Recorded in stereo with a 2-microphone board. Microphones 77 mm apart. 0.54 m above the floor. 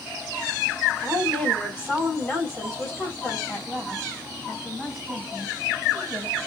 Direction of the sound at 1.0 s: 15° left (ahead or behind).